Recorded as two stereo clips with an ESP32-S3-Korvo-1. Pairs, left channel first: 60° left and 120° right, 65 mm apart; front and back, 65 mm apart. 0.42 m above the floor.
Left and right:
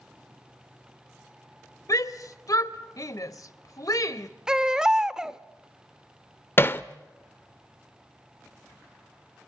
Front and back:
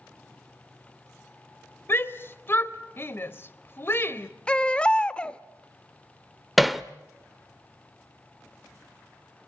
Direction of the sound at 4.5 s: 55° right.